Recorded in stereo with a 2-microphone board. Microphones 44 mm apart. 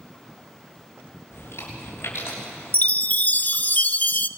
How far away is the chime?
About 0.5 m.